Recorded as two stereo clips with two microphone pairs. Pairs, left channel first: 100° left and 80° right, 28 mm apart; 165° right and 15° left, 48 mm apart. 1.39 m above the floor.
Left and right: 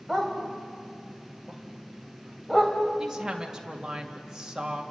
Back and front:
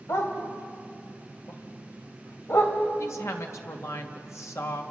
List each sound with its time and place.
0.1 s a dog barking: 175° right, 3 m
3.0 s a woman speaking: 150° right, 2.5 m